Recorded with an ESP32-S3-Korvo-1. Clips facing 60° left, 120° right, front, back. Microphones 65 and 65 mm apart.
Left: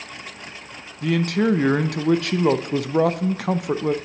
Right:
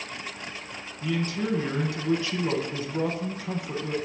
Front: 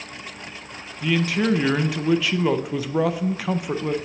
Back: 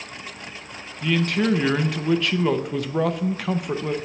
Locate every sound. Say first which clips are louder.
1.0 s a man speaking: left 8 dB, even; 85° left, 0.5 m